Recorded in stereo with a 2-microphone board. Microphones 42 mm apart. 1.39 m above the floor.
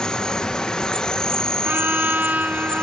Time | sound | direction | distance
0.0 | an insect | 15° left (ahead or behind) | ?
1.6 | a trumpet | 35° right (ahead or behind) | ?